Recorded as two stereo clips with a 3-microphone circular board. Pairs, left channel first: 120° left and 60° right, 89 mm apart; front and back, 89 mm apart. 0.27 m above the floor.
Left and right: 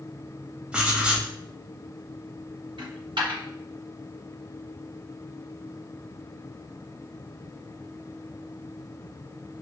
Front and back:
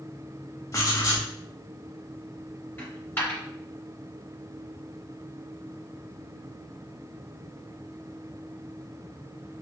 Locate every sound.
0.7 s writing: 10° left, 0.8 m
2.8 s a dropped coin: 70° right, 1.5 m